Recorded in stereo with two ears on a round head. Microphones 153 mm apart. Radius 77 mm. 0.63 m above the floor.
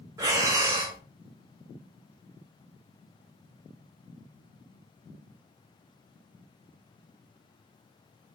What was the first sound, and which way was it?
Breathing, 20° right (ahead or behind).